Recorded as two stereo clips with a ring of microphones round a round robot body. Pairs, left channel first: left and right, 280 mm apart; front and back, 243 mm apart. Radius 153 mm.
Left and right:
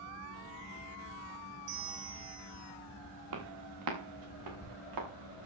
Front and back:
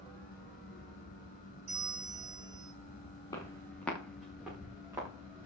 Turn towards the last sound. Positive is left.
turn(degrees=-105)